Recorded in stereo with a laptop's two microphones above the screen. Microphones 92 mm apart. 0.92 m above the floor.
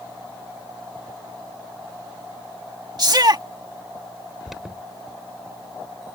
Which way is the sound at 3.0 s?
50° right (ahead or behind).